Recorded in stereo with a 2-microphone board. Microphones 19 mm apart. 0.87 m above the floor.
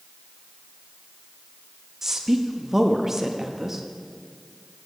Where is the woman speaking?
15° right (ahead or behind), 0.7 m.